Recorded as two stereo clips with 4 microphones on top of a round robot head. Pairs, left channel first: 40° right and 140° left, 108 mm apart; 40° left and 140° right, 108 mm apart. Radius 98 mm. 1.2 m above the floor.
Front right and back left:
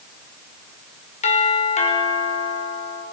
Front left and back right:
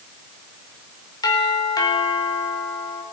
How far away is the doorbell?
About 5 m.